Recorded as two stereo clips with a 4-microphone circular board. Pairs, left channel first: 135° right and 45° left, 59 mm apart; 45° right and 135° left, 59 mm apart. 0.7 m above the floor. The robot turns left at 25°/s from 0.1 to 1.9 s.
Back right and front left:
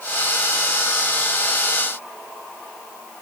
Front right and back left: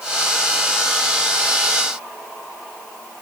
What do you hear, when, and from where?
Only background noise.